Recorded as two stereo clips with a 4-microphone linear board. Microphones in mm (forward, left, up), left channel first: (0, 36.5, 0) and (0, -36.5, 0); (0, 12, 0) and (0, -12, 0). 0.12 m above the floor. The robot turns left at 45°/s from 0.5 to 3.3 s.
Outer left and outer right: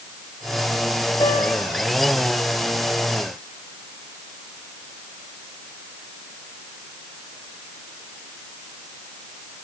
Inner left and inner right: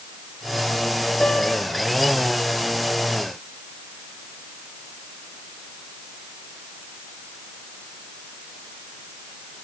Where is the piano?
65° left (ahead or behind), 7.5 m; by 1.7 s 80° left, 7.5 m.